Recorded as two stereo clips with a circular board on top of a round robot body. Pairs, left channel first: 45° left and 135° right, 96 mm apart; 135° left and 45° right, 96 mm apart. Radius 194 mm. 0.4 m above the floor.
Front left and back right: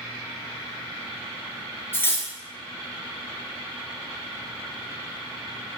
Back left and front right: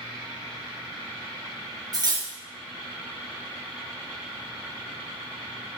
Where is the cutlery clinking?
15° right, 0.7 m.